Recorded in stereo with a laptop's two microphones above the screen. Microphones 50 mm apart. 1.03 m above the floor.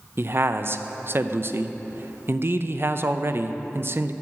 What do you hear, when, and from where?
0.2 s a man speaking: 50° right (ahead or behind), 0.5 m